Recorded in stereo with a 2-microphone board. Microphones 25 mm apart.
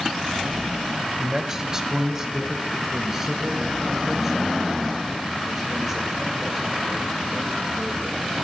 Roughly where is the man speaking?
Centre.